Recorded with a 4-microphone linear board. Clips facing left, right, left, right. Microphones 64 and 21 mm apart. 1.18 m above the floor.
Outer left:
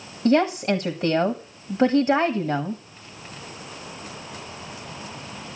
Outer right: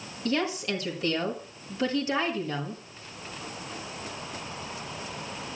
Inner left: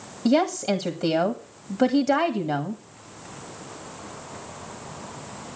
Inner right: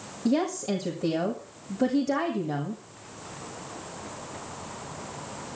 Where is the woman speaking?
35° left (ahead or behind), 1.6 m.